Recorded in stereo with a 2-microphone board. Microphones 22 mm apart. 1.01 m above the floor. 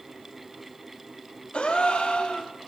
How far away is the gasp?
About 2 m.